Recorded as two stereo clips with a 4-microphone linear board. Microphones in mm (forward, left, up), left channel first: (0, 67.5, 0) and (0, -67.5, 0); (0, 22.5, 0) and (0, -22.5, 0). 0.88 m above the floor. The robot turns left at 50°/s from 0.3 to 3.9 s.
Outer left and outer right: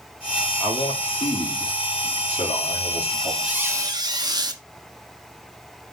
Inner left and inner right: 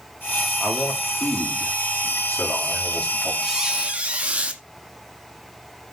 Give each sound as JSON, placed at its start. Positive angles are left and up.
{"t": 0.6, "sound": "a man speaking", "azimuth_deg": 155, "distance_m": 2.5}
{"t": 3.4, "sound": "a squeak", "side_deg": -5, "distance_m": 1.1}